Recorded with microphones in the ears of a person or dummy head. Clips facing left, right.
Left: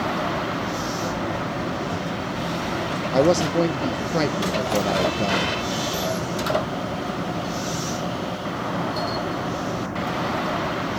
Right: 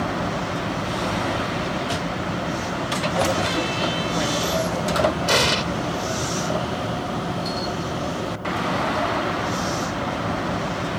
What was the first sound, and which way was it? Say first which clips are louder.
A man speaking: left 6 dB; 55° left (ahead or behind).